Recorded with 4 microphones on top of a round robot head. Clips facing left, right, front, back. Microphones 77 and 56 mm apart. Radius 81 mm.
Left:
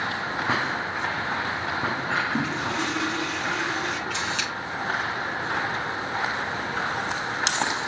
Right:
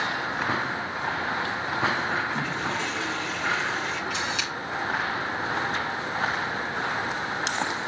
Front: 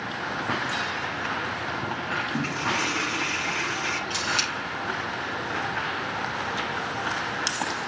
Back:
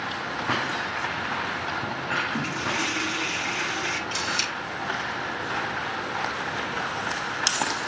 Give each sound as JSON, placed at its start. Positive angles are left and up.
{"t": 2.3, "sound": "a toilet flushing", "azimuth_deg": 55, "distance_m": 1.5}
{"t": 4.1, "sound": "a camera shutter", "azimuth_deg": -5, "distance_m": 3.0}